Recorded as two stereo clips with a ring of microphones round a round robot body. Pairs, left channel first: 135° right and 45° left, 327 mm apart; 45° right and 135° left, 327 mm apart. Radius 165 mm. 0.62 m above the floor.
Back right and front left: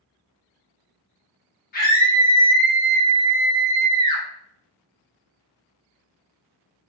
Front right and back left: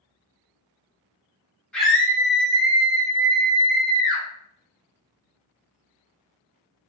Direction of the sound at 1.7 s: 125° right.